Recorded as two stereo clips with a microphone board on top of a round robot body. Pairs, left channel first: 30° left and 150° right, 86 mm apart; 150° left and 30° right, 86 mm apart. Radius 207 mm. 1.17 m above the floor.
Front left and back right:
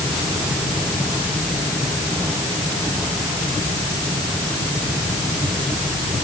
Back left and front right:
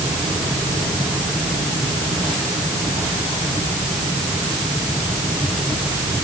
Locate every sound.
Only background noise.